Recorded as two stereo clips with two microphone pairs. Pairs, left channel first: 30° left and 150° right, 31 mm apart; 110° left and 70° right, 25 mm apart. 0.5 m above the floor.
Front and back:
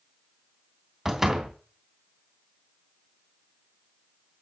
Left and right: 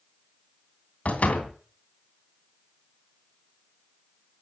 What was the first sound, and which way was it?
A door slam, 135° left.